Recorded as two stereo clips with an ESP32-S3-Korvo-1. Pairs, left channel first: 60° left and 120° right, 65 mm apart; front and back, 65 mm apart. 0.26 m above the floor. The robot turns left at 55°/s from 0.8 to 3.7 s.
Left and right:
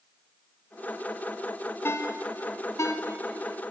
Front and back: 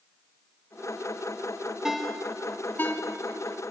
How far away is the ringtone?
About 1.6 m.